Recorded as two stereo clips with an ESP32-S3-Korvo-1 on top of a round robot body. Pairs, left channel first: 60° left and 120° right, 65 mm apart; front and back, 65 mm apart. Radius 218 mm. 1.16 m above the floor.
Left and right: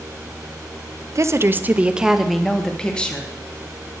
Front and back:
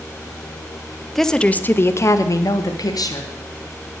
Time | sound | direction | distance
1.1 | a woman speaking | 85° right | 0.9 m